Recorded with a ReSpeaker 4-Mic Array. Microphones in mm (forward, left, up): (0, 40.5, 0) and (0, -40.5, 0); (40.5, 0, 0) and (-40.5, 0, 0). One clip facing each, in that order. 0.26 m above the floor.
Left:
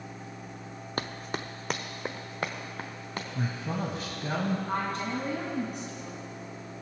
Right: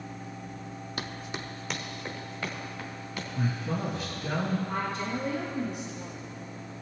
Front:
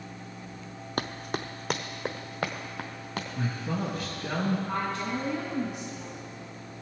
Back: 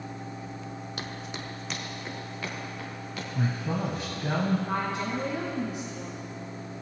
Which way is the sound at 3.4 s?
125° left.